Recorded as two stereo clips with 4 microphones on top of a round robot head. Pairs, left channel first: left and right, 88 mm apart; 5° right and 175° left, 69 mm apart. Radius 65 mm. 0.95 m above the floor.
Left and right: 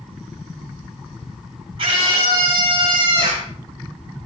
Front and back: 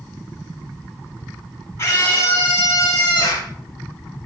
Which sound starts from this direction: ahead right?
A scream, at 1.8 s.